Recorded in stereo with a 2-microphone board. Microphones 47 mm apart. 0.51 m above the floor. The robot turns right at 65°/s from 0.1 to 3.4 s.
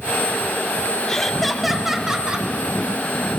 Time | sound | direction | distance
1.1 | laughter | 10° left (ahead or behind) | 0.7 m